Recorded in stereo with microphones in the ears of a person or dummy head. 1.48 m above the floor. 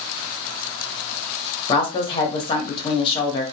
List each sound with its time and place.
1.7 s a woman speaking: 25° left (ahead or behind), 0.8 m